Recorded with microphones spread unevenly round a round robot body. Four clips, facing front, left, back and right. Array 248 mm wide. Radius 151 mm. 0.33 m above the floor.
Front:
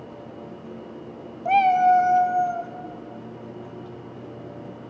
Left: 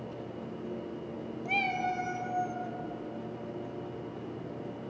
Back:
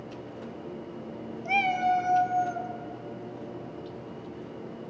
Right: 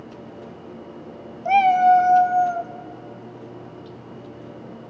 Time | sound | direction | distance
1.4 | a cat meowing | 55° right | 0.9 m